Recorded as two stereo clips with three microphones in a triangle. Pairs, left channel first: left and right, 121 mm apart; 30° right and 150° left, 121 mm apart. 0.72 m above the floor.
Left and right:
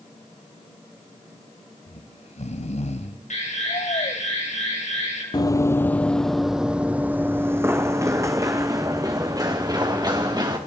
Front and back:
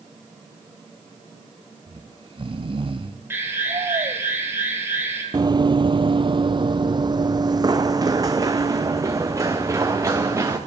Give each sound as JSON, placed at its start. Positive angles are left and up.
{"t": 1.9, "sound": "snoring", "azimuth_deg": 110, "distance_m": 1.6}
{"t": 3.3, "sound": "an alarm", "azimuth_deg": 80, "distance_m": 9.5}
{"t": 5.3, "sound": "running footsteps", "azimuth_deg": 120, "distance_m": 0.9}